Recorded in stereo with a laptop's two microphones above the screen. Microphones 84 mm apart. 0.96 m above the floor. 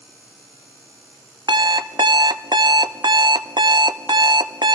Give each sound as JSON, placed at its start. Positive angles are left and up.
{"t": 1.5, "sound": "an alarm clock", "side_deg": -60, "distance_m": 0.7}